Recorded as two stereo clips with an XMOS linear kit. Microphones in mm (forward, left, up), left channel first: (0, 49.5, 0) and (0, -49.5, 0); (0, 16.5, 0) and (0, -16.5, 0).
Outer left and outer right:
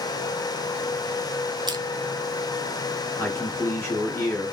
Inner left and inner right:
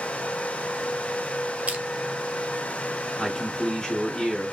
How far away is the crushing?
About 0.6 m.